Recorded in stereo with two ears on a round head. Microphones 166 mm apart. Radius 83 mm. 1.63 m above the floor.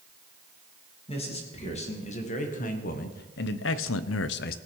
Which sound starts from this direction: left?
A man speaking, at 1.1 s.